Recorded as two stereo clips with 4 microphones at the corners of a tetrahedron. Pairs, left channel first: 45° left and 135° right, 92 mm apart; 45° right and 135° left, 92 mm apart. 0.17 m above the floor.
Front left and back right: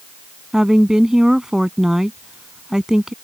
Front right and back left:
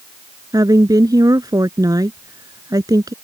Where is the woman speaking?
145° left.